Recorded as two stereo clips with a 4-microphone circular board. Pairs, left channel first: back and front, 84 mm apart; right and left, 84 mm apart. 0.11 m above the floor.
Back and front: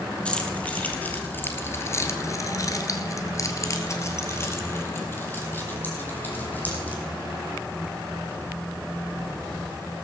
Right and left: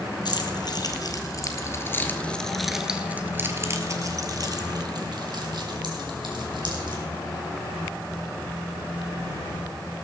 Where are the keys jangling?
105° right, 2.5 m; by 7.0 s 110° left, 4.5 m.